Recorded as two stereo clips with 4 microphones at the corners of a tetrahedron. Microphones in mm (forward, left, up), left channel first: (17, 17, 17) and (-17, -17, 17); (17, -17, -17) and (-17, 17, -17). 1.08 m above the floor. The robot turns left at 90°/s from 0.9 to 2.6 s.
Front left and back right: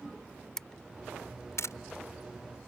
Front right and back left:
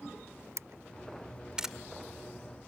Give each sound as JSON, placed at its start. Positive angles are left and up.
{"t": 0.6, "sound": "a camera shutter", "azimuth_deg": 125}